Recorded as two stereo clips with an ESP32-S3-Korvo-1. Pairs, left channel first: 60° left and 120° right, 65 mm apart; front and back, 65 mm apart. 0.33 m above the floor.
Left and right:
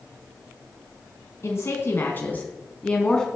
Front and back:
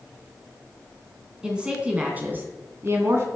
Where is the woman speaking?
105° left, 2.5 m; by 3.3 s 140° left, 2.5 m.